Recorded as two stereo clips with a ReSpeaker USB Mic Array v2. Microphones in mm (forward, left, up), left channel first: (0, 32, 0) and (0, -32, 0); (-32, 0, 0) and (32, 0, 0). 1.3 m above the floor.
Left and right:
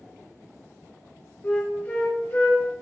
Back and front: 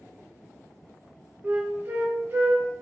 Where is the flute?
40° left, 0.6 m.